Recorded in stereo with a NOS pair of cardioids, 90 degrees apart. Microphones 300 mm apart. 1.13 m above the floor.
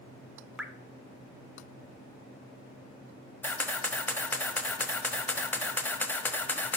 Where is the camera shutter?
5° left, 1.0 m.